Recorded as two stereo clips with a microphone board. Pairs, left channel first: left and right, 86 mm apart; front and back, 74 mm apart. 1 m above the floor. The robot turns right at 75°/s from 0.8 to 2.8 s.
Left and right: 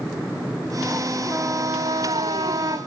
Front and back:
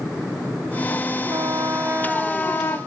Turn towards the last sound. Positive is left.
turn(degrees=-45)